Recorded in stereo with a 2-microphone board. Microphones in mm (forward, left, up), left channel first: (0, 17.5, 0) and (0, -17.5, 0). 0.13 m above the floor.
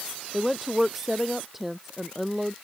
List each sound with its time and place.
0.3 s a woman speaking: 10° right (ahead or behind)